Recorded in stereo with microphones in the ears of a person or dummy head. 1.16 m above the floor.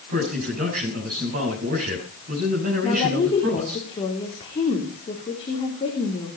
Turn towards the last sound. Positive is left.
turn(degrees=25)  # may be behind; listen again after turning